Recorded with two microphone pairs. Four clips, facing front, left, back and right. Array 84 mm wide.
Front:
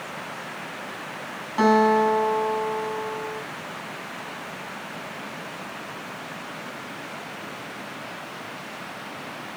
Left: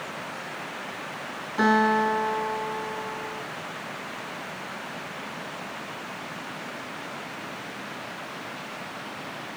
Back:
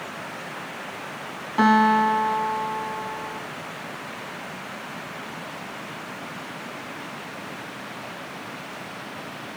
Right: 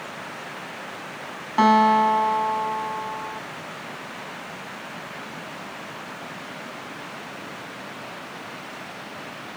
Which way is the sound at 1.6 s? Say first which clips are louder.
Right 5 dB, even; 90° right.